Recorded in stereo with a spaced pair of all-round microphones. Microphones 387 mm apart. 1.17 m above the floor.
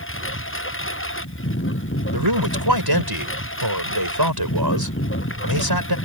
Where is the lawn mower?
30° left (ahead or behind).